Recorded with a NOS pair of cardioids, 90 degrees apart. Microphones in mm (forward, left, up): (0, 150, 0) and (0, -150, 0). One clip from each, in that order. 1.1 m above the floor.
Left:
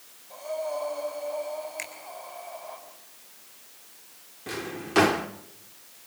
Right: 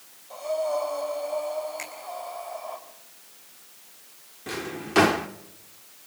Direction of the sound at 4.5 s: 5° right.